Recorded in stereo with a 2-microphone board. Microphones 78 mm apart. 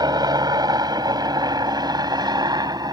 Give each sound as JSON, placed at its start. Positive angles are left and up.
{"t": 0.0, "sound": "a helicopter", "side_deg": -60}